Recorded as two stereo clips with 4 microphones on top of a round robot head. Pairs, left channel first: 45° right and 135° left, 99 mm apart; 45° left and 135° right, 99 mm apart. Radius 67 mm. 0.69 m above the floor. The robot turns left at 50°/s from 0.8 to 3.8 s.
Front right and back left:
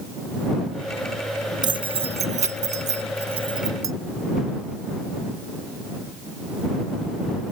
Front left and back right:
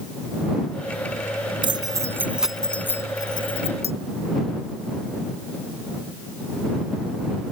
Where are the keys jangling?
175° right; by 3.9 s 75° left.